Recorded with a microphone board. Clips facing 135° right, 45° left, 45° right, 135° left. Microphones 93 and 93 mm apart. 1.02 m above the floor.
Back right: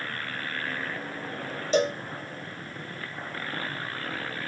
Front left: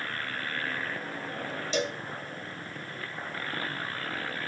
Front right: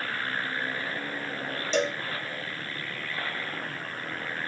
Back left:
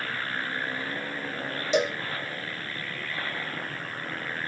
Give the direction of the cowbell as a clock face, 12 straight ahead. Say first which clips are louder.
Back right 7 dB, back left 2 dB; 5 o'clock.